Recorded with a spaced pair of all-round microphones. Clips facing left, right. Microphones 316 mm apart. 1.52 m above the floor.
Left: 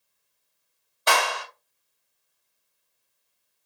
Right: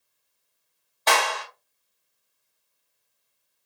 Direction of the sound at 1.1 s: 15° left (ahead or behind).